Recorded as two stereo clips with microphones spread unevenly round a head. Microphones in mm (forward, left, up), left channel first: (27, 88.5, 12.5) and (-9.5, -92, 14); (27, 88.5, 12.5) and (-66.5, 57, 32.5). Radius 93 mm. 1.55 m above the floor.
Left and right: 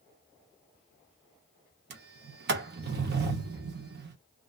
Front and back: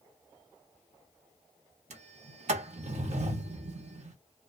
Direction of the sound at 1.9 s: 135° right.